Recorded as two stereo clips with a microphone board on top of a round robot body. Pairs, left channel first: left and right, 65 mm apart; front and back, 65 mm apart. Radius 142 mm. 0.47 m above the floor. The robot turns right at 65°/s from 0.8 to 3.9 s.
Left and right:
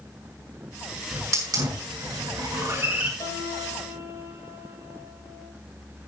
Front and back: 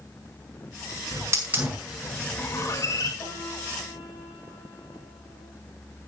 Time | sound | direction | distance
1.1 | a hiss | 145° right | 6.5 m
3.2 | a piano | 50° left | 6 m